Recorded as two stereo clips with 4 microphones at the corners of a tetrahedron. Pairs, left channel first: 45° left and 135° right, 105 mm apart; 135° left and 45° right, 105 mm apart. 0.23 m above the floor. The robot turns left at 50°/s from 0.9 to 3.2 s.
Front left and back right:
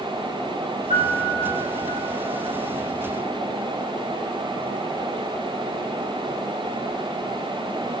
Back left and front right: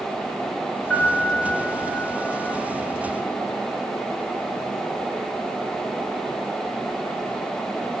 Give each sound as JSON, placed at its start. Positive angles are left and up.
{"t": 0.9, "sound": "a piano", "azimuth_deg": -145, "distance_m": 8.0}